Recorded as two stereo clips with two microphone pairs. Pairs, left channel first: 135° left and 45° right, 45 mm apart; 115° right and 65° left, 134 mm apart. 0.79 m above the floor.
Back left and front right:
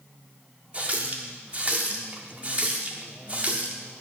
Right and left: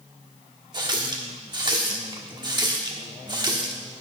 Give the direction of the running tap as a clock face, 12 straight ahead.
12 o'clock.